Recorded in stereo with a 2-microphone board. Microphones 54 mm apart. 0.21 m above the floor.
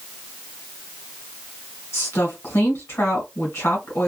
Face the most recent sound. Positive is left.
turn(degrees=50)  # may be behind; listen again after turning